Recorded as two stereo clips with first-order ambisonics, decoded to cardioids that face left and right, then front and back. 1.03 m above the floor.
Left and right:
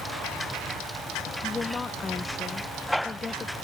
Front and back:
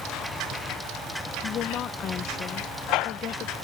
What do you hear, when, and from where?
1.4 s a woman speaking: 25° left